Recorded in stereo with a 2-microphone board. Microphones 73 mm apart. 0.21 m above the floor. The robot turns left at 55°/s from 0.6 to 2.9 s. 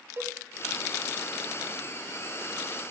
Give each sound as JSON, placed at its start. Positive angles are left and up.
{"t": 0.2, "sound": "a cowbell", "side_deg": -30, "distance_m": 1.1}